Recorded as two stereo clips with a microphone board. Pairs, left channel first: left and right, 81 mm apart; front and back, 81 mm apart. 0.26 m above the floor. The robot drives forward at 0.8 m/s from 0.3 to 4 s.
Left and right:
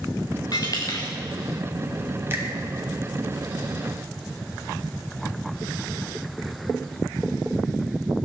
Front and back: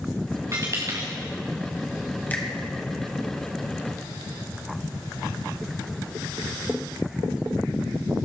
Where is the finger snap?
50° right, 1.7 m; by 2.5 s 55° right, 1.6 m.